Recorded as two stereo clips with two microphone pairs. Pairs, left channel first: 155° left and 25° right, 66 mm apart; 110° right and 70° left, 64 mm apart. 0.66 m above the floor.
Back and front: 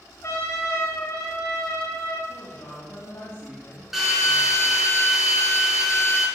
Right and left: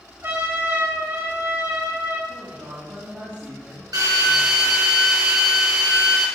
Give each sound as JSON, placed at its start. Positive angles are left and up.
{"t": 0.2, "sound": "a trumpet", "azimuth_deg": 115, "distance_m": 3.0}
{"t": 2.3, "sound": "a woman speaking", "azimuth_deg": 115, "distance_m": 3.0}
{"t": 3.9, "sound": "a drill", "azimuth_deg": 60, "distance_m": 4.0}